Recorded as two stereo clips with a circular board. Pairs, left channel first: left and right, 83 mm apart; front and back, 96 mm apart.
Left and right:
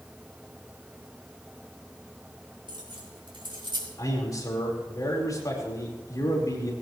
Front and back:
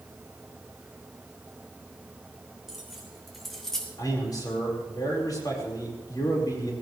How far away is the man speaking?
About 5 m.